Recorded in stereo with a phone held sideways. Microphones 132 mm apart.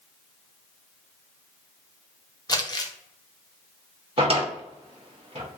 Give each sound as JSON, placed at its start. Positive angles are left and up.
{"t": 2.5, "sound": "crumpling", "side_deg": 30, "distance_m": 0.5}
{"t": 4.2, "sound": "a drawer", "side_deg": -45, "distance_m": 0.8}